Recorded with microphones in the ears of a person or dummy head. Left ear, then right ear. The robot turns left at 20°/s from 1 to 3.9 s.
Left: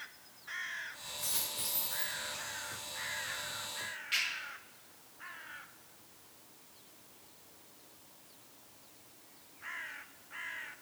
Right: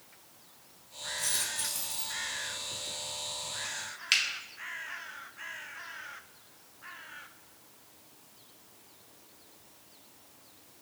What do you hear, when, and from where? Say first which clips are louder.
1.2 s a dropped coin: right 5 dB; 15° left (ahead or behind), 0.6 m; by 2.2 s 20° left (ahead or behind), 0.6 m
4.1 s a finger snap: right 7 dB; 60° right (ahead or behind), 1.1 m